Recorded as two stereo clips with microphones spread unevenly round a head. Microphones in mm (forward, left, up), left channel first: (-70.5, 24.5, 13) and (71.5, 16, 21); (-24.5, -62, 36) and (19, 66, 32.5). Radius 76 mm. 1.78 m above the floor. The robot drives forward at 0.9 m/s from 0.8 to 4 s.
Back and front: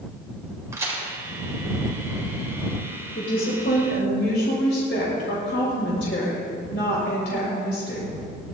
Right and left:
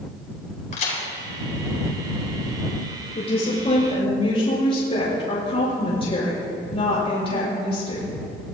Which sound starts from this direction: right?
A crack, at 0.7 s.